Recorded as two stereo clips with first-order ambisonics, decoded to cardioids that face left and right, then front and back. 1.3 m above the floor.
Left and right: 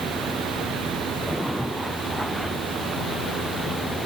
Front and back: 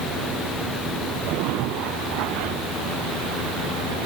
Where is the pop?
I don't hear a pop.